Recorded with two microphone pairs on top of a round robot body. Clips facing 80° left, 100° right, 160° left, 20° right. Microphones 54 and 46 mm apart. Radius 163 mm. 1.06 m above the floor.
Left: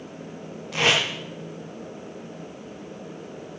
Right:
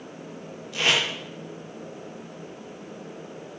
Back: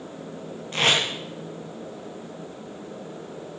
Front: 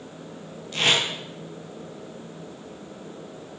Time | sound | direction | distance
0.7 | tape being pulled | 105° left | 5 m